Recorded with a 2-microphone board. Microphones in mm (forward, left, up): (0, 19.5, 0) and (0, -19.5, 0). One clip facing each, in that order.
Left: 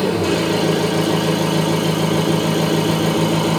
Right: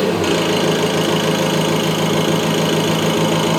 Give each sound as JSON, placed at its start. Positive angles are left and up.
{"t": 0.0, "sound": "an engine running", "side_deg": -60, "distance_m": 1.3}